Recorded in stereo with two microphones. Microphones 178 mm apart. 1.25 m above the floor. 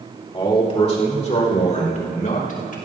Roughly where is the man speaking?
Left.